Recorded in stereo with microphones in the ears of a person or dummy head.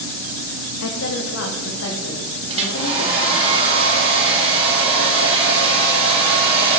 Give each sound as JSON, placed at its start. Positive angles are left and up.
{"t": 0.8, "sound": "a woman speaking", "side_deg": 65, "distance_m": 0.8}
{"t": 2.5, "sound": "a hair dryer", "side_deg": -30, "distance_m": 2.0}